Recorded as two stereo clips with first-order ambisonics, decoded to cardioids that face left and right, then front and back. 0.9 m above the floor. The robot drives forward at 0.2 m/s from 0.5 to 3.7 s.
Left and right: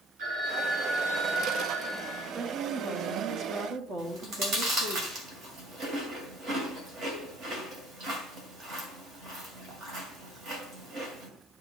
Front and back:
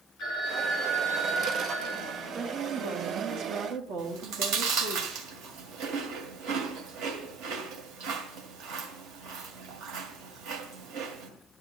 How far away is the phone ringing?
About 5 m.